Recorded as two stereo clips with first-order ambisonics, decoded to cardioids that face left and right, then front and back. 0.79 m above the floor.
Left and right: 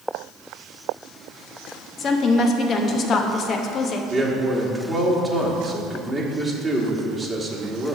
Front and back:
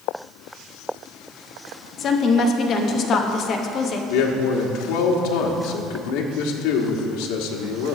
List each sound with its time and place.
2.0 s a woman speaking: 45° left, 0.9 m
4.1 s a man speaking: 5° right, 1.4 m